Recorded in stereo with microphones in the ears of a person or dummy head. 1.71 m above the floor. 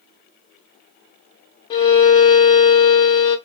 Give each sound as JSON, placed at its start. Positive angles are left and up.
{"t": 1.7, "sound": "a violin", "side_deg": 25, "distance_m": 0.6}